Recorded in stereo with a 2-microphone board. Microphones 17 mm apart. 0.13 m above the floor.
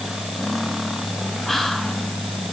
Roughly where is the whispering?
Centre.